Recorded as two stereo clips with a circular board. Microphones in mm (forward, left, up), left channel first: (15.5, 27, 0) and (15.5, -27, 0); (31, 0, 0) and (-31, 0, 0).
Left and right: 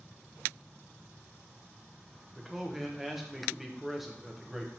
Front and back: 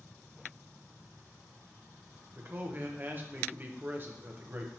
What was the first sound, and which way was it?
A man speaking, 175° right.